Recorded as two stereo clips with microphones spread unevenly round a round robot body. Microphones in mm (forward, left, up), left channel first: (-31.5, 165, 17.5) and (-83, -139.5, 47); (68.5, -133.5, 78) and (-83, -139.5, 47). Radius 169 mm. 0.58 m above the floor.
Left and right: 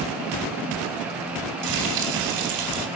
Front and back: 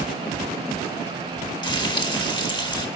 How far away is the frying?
About 4 m.